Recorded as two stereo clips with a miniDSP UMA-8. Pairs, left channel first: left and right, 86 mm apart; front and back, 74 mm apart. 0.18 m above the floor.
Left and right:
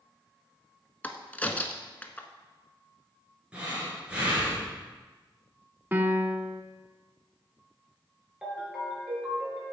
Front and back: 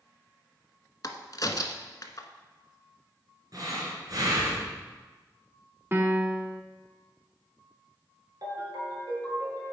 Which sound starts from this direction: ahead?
A crack, at 1.0 s.